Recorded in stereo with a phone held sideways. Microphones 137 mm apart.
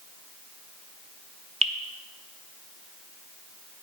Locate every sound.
1.6 s dripping: 50° right (ahead or behind), 0.7 m